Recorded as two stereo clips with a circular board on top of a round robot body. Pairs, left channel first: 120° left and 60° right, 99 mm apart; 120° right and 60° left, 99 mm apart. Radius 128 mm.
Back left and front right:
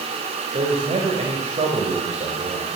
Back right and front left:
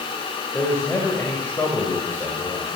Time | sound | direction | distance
0.5 | a man speaking | 50° right | 3.5 m